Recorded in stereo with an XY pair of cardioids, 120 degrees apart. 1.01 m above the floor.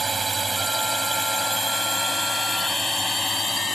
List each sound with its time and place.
0.0 s a drone: 20° right; by 3.8 s 25° left